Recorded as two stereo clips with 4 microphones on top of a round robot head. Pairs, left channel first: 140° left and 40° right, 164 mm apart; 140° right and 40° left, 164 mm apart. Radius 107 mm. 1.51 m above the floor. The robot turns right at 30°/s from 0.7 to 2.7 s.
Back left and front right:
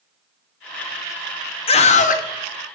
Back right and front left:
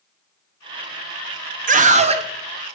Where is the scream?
80° left, 1.1 m; by 2.2 s 100° left, 1.1 m.